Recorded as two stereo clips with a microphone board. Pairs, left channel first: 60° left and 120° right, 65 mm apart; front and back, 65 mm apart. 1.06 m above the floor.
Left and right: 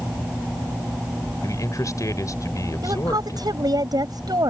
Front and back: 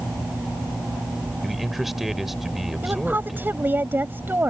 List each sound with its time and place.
1.4 s a man speaking: 95° left
2.8 s a woman speaking: 120° right